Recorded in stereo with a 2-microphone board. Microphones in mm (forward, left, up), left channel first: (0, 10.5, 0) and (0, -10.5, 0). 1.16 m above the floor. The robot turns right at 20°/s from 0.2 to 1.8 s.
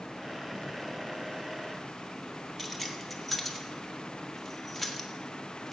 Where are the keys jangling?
Centre (ahead or behind), 1.3 m.